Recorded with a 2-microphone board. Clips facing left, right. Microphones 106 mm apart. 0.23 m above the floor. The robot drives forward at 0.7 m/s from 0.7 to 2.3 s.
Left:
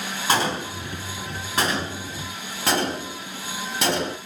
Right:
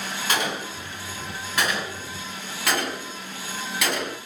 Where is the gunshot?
35° left (ahead or behind), 1.5 m; by 4.2 s 30° left (ahead or behind), 1.8 m.